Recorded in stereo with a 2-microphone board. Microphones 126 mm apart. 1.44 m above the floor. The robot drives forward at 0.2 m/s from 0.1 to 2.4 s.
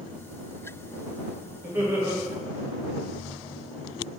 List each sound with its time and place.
1.6 s laughter: 20° right (ahead or behind), 1.0 m; by 2.2 s 15° right (ahead or behind), 1.0 m